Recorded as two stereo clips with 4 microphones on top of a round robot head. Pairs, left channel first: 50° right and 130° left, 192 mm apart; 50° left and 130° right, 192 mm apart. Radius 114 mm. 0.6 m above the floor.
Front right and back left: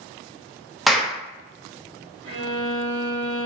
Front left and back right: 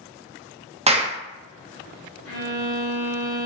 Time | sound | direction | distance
0.9 | a clap | 140° right | 0.6 m
2.2 | a violin | 65° left | 0.8 m